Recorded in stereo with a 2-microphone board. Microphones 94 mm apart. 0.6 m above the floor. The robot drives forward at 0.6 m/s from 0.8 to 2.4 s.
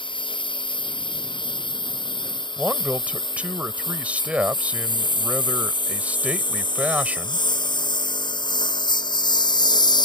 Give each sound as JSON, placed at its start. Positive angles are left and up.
{"t": 0.0, "sound": "a lawn mower", "side_deg": 55}
{"t": 2.6, "sound": "a man speaking", "side_deg": -15}